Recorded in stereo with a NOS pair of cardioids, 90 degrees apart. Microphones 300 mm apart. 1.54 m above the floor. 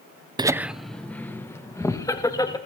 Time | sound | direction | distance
0.4 | laughter | 15° right | 0.5 m